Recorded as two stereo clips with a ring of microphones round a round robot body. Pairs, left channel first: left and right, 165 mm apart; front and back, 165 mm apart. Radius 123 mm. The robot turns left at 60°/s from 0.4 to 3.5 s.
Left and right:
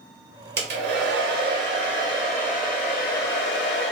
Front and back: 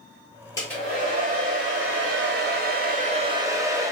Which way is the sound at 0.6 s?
75° right.